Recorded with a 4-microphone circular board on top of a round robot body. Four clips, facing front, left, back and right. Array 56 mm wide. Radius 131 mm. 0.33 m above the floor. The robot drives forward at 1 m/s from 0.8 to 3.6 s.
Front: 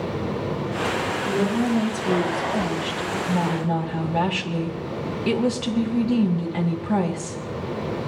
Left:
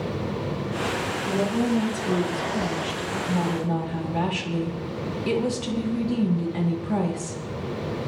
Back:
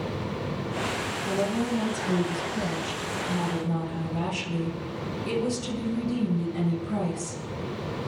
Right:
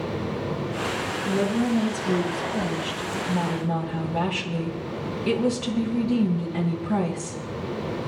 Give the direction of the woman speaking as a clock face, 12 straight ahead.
12 o'clock.